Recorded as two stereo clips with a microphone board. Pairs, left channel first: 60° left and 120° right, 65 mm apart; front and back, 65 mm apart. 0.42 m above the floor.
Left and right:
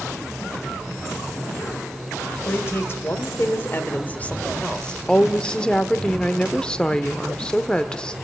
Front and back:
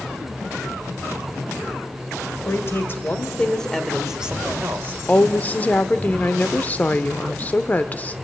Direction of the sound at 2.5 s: 25° left.